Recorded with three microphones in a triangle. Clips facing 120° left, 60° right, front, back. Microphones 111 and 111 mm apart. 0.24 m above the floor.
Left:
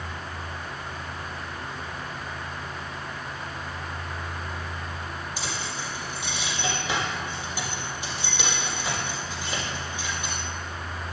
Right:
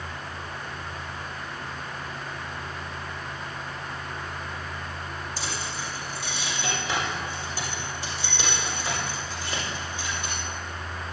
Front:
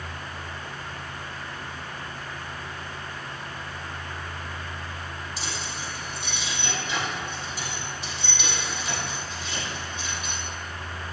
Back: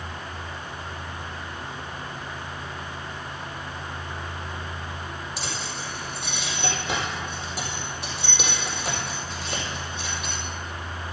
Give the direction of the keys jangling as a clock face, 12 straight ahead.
5 o'clock.